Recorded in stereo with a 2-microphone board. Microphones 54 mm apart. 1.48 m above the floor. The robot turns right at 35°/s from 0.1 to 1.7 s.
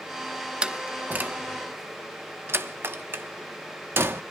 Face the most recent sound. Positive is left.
turn(degrees=-55)  # may be behind; listen again after turning